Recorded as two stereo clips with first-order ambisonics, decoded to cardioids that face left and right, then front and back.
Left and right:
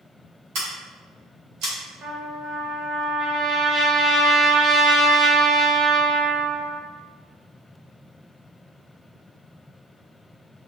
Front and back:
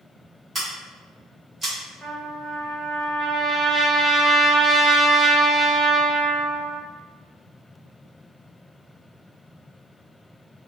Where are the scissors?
100° right, 1.2 m.